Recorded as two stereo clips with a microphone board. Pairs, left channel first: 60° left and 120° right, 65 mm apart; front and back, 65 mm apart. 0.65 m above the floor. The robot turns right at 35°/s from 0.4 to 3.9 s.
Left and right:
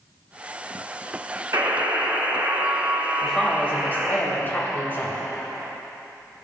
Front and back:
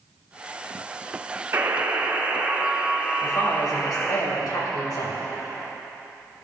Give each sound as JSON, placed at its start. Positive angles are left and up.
{"t": 1.5, "sound": "a buzzer", "azimuth_deg": -140, "distance_m": 1.8}
{"t": 3.2, "sound": "a woman speaking", "azimuth_deg": -20, "distance_m": 3.5}